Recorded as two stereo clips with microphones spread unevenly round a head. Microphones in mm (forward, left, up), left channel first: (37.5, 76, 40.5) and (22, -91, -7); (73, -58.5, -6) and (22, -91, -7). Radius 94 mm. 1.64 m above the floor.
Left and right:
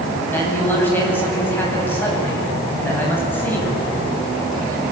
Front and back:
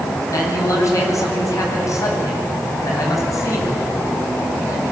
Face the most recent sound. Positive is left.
turn(degrees=10)